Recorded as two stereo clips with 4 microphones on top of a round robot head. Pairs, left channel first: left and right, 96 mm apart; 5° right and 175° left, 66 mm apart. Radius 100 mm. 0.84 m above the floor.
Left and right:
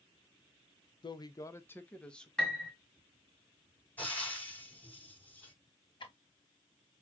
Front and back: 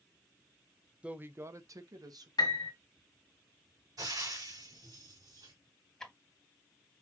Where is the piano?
10° left, 1.4 m.